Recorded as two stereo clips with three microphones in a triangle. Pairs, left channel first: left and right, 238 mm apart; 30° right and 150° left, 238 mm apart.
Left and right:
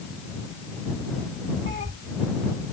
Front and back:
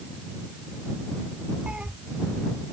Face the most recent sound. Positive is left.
turn(degrees=-125)